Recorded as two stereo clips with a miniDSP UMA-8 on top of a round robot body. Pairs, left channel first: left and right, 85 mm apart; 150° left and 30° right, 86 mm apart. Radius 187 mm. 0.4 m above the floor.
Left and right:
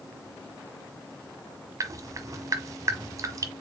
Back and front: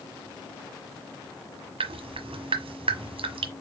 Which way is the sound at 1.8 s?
35° right.